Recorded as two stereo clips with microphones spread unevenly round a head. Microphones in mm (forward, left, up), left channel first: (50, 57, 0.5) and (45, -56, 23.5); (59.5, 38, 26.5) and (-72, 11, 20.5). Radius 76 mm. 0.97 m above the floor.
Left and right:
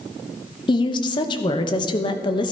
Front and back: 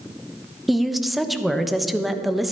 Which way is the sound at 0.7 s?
105° left.